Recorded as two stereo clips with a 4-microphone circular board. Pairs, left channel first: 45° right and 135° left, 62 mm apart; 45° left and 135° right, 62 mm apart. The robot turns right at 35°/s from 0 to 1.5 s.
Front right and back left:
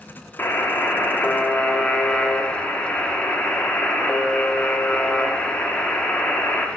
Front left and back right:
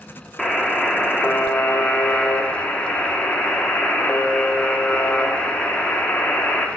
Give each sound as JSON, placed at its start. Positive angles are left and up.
{"t": 0.4, "sound": "a buzzer", "azimuth_deg": -30, "distance_m": 0.6}